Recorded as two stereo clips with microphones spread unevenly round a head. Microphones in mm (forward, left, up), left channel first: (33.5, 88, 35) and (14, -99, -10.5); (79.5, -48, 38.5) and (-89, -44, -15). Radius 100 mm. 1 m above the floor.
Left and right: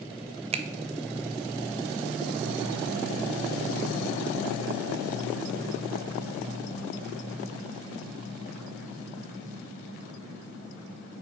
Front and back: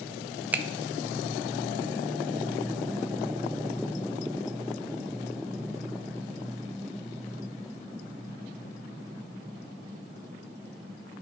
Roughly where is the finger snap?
Behind right.